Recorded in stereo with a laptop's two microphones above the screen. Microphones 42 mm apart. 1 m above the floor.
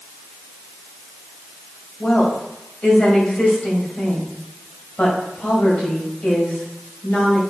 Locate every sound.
2.0 s a woman speaking: 30° left (ahead or behind), 4.5 m